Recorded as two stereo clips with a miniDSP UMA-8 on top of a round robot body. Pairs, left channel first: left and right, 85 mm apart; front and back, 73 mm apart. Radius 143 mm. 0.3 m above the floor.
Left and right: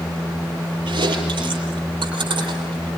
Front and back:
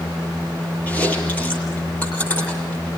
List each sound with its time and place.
0.9 s chewing: 70° right, 8.5 m